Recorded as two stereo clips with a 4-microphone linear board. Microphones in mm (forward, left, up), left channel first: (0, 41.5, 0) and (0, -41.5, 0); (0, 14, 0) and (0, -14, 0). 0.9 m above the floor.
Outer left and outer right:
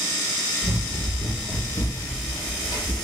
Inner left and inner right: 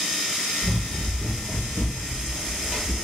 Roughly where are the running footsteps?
Left.